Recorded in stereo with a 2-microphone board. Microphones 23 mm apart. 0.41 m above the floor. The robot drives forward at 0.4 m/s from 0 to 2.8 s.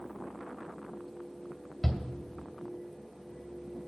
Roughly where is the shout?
Centre.